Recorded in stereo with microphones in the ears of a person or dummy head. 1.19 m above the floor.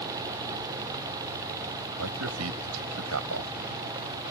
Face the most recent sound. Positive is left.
turn(degrees=-85)